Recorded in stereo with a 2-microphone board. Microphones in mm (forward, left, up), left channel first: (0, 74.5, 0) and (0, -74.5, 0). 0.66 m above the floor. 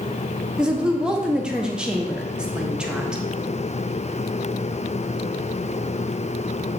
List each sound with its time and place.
0.6 s a woman speaking: 5° right (ahead or behind), 0.5 m